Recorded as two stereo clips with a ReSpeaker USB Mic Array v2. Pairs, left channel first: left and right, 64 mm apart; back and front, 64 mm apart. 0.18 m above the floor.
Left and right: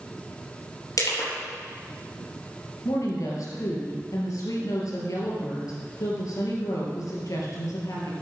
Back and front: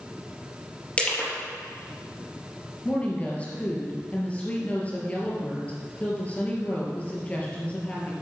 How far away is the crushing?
About 4 m.